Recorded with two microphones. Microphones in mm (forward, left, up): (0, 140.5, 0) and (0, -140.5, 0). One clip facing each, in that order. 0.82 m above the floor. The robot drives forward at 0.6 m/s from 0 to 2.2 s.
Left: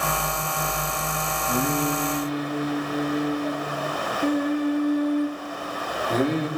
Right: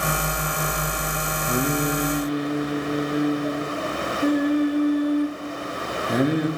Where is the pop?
No pop in this recording.